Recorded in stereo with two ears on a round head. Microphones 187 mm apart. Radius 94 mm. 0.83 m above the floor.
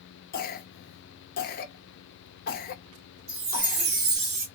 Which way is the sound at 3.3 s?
70° right (ahead or behind).